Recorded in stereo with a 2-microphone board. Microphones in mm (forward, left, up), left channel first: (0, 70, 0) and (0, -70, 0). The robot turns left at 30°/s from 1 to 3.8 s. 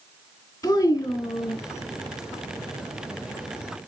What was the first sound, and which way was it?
A child speaking, 25° left (ahead or behind).